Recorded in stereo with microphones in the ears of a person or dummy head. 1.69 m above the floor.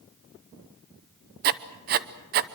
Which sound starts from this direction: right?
Writing, at 1.4 s.